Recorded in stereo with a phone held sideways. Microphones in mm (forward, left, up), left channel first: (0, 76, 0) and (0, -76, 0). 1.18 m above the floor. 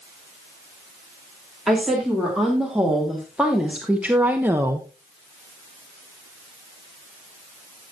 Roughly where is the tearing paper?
No tearing paper in this recording.